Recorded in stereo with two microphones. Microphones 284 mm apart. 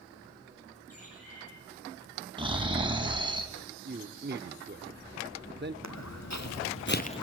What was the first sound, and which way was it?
A bird, 55° left (ahead or behind).